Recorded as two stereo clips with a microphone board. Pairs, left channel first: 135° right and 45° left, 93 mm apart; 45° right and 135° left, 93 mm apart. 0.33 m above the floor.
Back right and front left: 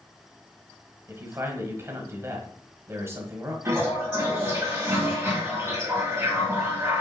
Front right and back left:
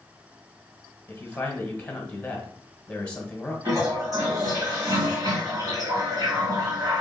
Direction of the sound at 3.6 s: 105° left.